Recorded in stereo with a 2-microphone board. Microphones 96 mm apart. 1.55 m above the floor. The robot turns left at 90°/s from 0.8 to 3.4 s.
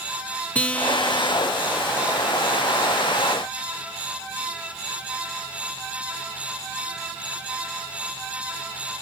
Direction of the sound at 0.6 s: 15° left (ahead or behind).